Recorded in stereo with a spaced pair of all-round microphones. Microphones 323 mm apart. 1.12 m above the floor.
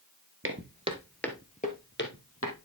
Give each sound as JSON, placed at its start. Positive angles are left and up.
{"t": 0.4, "sound": "footsteps", "side_deg": -40, "distance_m": 1.4}